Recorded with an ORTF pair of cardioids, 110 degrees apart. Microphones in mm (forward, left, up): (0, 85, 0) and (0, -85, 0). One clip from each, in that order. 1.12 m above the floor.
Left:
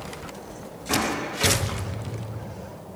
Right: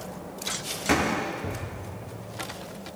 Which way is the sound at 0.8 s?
65° right.